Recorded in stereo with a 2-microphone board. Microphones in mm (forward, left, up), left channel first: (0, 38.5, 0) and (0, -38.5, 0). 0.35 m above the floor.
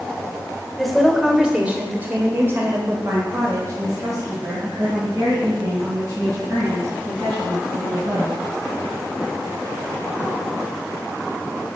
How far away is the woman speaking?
About 1.2 m.